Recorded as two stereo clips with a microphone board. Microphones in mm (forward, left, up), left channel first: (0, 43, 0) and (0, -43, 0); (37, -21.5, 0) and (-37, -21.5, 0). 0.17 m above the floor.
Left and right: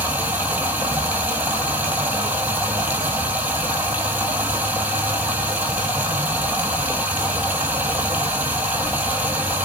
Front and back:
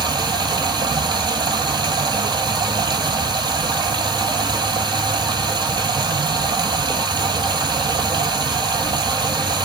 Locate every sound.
0.0 s running water: 160° right, 1.1 m